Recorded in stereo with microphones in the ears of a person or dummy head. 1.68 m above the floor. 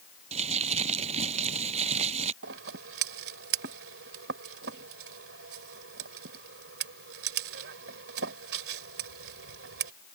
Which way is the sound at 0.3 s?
35° right (ahead or behind).